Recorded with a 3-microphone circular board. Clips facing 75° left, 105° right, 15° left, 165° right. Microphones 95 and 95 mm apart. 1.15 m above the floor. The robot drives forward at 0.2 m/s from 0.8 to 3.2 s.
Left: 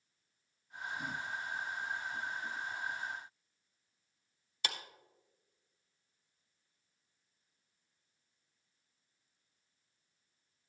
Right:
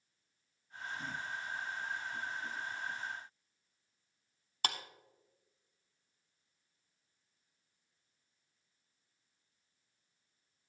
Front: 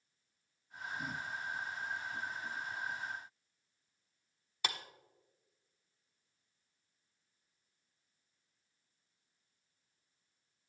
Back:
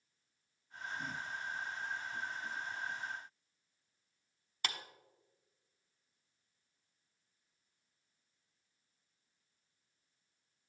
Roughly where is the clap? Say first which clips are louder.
Right 4 dB, front 2 dB; right.